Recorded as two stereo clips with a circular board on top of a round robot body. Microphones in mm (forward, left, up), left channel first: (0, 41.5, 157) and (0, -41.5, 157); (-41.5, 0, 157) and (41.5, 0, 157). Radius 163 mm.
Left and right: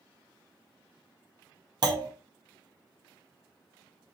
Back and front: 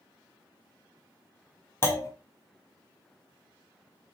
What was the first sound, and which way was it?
A clunk, 120° right.